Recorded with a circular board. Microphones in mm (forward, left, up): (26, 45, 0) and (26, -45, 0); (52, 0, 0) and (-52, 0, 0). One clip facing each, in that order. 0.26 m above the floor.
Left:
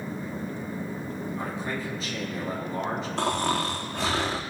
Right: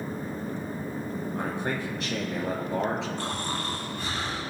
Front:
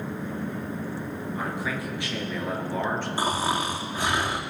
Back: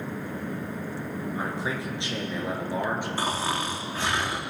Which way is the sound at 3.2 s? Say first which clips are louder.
Left 6 dB, front 2 dB; 80° left.